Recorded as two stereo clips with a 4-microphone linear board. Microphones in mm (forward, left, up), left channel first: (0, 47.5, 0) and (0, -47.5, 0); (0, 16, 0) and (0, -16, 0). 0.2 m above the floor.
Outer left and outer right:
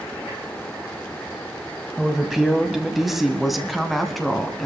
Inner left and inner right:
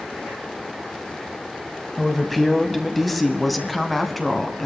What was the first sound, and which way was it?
A woman speaking, 5° right (ahead or behind).